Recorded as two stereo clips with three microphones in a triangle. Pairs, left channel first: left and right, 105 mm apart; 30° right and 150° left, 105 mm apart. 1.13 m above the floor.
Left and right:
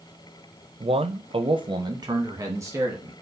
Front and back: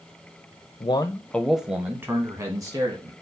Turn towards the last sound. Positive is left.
turn(degrees=-155)